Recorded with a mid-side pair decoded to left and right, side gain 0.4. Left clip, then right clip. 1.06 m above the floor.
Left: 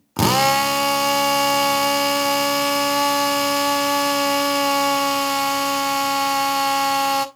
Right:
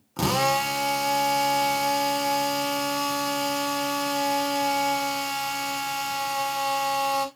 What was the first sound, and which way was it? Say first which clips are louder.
A drill: left 6 dB; 65° left.